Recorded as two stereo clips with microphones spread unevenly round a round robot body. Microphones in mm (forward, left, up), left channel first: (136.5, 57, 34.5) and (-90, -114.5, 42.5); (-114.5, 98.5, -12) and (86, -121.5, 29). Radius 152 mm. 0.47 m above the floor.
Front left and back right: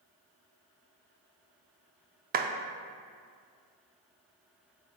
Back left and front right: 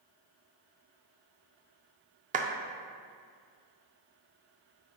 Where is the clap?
105° right, 0.5 m.